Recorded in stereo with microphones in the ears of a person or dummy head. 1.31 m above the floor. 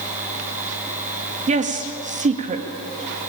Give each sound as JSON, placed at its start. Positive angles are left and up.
{"t": 1.5, "sound": "a woman speaking", "side_deg": -30, "distance_m": 2.0}